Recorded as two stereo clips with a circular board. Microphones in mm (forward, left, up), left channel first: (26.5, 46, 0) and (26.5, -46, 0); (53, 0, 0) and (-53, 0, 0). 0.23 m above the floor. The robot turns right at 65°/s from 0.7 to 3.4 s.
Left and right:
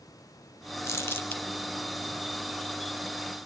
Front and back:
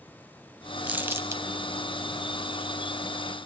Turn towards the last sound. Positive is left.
turn(degrees=-85)